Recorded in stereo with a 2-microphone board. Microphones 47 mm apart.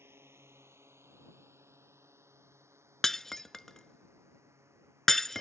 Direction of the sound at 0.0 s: 60° right (ahead or behind).